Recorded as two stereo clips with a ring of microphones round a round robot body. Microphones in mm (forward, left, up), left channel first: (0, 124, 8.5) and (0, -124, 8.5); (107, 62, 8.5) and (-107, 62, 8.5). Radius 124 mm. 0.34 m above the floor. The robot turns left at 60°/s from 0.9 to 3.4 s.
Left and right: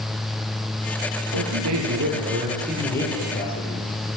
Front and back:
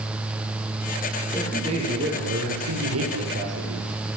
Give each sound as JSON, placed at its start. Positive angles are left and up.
{"t": 1.3, "sound": "a man speaking", "azimuth_deg": -90, "distance_m": 10.0}